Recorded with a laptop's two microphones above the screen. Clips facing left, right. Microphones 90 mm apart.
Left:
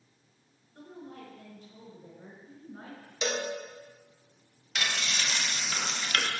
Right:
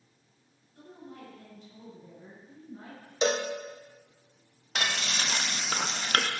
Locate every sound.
0.8 s a woman speaking: 55° left (ahead or behind), 4.5 m
3.2 s a cowbell: 35° right (ahead or behind), 0.6 m
4.8 s frying: 45° right (ahead or behind), 0.8 m